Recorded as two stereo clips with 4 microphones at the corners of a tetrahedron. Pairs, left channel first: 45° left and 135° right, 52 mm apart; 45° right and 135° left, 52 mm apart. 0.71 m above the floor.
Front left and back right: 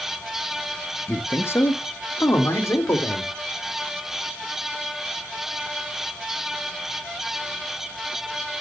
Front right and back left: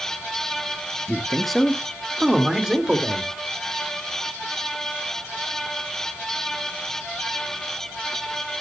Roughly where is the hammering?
I don't hear hammering.